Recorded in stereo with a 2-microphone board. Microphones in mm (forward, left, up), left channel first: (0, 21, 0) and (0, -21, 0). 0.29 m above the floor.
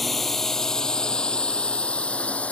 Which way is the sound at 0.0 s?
5° left (ahead or behind).